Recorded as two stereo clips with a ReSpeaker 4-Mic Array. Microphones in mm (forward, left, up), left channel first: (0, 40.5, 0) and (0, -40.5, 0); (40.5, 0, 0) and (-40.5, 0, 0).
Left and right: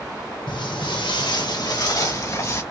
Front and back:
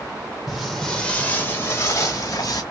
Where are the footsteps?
95° left, 1.2 m; by 2.6 s 35° left, 1.7 m.